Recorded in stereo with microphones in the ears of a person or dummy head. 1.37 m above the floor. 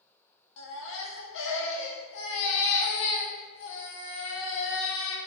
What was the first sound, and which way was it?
A baby crying, 65° left (ahead or behind).